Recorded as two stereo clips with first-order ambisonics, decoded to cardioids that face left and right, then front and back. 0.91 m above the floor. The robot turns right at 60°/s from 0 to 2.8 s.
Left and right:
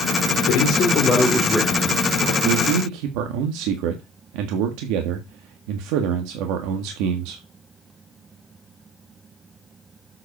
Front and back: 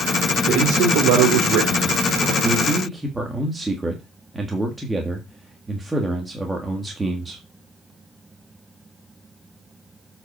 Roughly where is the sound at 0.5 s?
Behind left.